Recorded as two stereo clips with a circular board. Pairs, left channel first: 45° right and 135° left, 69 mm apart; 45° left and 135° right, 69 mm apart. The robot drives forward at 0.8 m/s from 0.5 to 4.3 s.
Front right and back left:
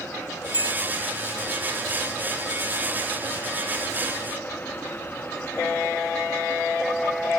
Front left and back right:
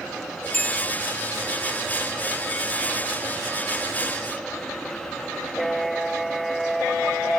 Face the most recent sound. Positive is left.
turn(degrees=-65)